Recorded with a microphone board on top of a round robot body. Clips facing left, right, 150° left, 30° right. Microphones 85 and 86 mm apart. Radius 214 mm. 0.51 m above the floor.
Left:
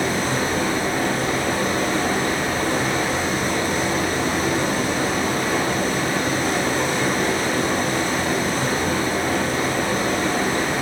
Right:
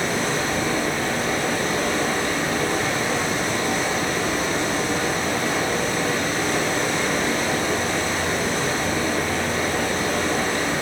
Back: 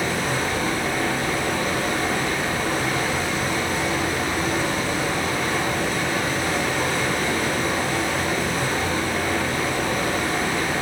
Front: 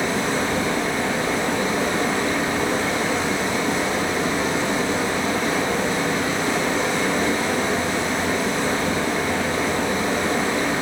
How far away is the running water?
About 4.5 m.